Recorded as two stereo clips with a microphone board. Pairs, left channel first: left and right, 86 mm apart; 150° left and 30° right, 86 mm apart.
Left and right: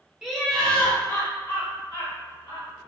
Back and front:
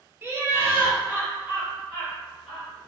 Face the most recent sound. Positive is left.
turn(degrees=55)